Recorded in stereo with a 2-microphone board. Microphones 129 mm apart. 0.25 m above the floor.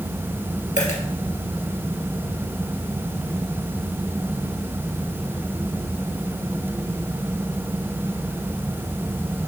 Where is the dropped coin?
75° left (ahead or behind), 2.5 m.